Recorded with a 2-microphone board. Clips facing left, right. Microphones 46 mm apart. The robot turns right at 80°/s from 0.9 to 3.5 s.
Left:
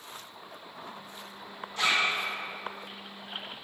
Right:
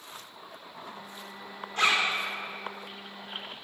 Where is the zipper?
45° right (ahead or behind), 1.6 m; by 2.1 s 75° right (ahead or behind), 1.6 m.